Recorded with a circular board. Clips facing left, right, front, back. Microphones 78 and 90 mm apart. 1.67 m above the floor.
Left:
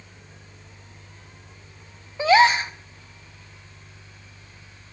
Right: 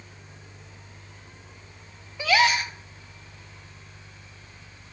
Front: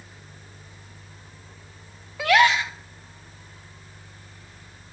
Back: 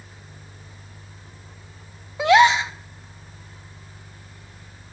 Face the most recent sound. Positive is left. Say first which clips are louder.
# left 6 dB, back 4 dB
turn(degrees=130)